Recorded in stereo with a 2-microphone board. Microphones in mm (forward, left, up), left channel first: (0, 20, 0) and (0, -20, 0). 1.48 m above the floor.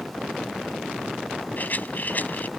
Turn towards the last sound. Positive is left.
turn(degrees=45)  # may be behind; listen again after turning